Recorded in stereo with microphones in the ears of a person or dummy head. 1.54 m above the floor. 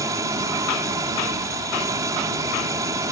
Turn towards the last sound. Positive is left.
turn(degrees=-15)  # may be behind; listen again after turning